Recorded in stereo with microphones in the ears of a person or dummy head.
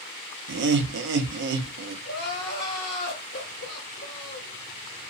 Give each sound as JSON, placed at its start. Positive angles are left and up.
{"t": 0.5, "sound": "laughter", "side_deg": -65, "distance_m": 0.5}
{"t": 2.0, "sound": "crying", "side_deg": 65, "distance_m": 1.5}